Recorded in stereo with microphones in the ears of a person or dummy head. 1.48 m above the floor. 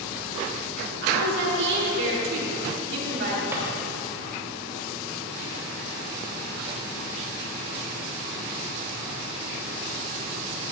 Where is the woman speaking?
65° right (ahead or behind), 3.5 m.